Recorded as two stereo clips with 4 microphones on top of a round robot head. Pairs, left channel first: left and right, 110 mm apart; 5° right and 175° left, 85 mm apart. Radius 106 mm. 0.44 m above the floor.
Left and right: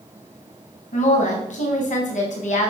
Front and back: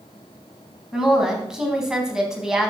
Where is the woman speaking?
95° left, 3.5 m.